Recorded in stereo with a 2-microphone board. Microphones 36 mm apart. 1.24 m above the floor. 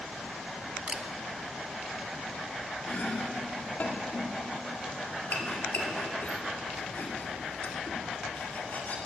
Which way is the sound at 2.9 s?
50° left (ahead or behind).